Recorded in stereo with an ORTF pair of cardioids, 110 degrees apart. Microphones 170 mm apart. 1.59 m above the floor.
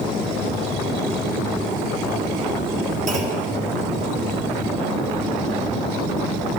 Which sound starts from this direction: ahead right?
A clunk, at 3.1 s.